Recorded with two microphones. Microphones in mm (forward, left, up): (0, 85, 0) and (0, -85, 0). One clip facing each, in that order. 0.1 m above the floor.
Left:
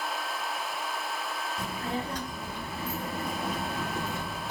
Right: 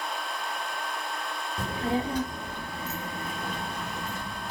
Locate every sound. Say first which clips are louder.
1.6 s a child speaking: right 7 dB; 40° right (ahead or behind), 0.9 m; by 4.5 s 65° left (ahead or behind), 1.9 m